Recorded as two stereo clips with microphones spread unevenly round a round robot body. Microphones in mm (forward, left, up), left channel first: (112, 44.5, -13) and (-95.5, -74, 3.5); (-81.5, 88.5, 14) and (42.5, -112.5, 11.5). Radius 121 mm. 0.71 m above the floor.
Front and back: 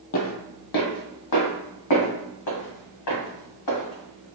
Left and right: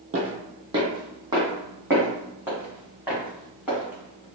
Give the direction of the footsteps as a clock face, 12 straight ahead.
12 o'clock.